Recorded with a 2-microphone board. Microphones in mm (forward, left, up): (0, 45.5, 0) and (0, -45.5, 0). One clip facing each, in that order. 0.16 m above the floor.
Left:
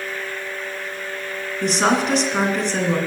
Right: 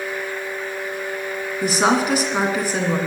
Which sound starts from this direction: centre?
A woman speaking, at 1.6 s.